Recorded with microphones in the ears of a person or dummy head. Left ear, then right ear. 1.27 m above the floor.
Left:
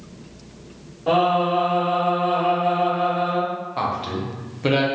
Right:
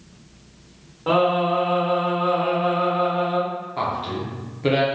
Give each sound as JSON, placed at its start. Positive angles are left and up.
{"t": 1.1, "sound": "singing", "side_deg": -25, "distance_m": 1.1}
{"t": 3.8, "sound": "a man speaking", "side_deg": 10, "distance_m": 0.7}